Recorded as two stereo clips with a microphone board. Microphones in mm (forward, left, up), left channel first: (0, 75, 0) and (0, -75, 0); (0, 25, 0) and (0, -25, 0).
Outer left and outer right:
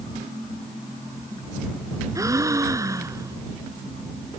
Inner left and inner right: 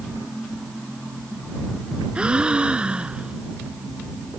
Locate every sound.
2.1 s a gasp: 20° right (ahead or behind)